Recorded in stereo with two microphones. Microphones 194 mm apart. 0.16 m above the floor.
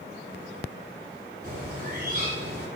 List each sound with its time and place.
1.4 s a bird: 50° right (ahead or behind), 5.5 m